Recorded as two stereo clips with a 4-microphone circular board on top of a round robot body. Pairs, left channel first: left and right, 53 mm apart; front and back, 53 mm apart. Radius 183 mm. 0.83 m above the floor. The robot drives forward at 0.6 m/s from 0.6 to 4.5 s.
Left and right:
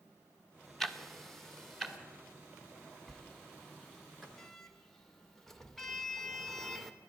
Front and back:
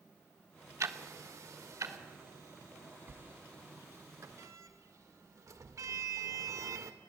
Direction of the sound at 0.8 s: 175° left.